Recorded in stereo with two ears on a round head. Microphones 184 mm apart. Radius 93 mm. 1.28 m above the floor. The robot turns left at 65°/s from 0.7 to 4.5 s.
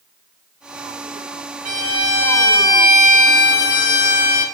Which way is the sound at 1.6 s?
130° right.